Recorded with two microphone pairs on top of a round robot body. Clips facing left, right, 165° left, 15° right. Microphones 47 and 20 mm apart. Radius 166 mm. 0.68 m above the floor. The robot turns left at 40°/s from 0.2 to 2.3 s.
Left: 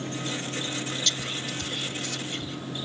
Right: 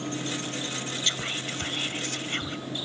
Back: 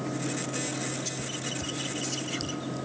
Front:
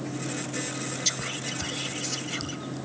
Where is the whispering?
45° right, 1.0 m; by 2.6 s 90° right, 1.0 m.